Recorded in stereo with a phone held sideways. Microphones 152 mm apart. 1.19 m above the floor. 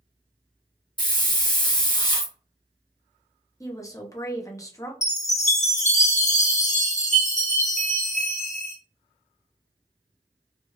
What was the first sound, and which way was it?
A hiss, 30° left (ahead or behind).